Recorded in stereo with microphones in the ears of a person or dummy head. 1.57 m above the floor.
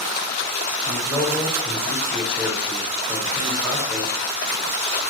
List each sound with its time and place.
0.8 s a man speaking: 5° right (ahead or behind), 5 m